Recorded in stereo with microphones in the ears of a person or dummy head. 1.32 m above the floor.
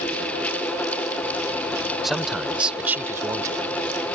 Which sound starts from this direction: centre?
A man speaking, at 2.0 s.